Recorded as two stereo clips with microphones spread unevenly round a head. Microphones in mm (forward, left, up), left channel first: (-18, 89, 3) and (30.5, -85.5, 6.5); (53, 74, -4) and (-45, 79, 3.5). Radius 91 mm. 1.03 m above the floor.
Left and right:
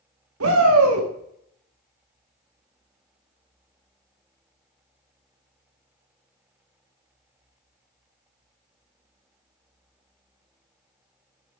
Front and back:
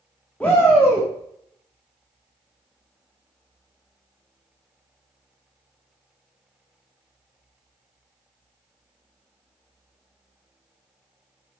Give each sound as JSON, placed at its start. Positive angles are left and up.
{"t": 0.4, "sound": "a shout", "azimuth_deg": -85, "distance_m": 1.7}